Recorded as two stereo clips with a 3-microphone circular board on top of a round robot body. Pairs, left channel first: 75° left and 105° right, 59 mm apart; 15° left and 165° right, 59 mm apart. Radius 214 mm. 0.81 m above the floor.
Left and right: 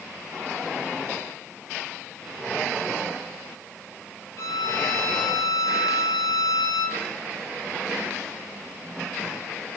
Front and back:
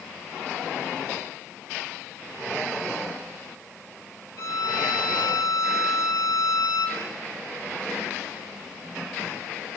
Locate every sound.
4.4 s a violin: 50° left, 1.3 m